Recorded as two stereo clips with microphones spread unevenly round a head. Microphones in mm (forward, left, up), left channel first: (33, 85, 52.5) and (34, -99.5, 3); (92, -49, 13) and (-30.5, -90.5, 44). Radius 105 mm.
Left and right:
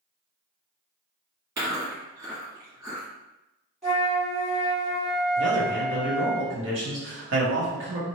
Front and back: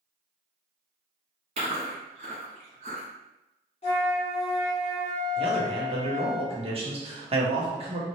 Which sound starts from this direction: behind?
Chewing, at 1.6 s.